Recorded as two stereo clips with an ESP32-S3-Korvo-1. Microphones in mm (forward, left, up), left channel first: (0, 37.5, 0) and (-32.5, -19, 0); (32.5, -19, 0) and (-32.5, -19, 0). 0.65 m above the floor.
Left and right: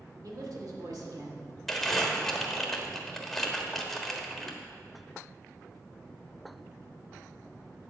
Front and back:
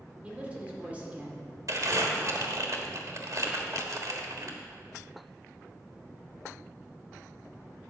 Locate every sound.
0.2 s a man speaking: 110° right, 1.6 m
1.7 s crumpling: 145° left, 1.2 m